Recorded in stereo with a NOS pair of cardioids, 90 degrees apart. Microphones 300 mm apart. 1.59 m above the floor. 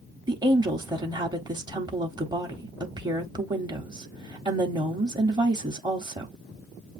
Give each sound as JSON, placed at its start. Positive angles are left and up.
{"t": 0.3, "sound": "a woman speaking", "azimuth_deg": -15, "distance_m": 0.9}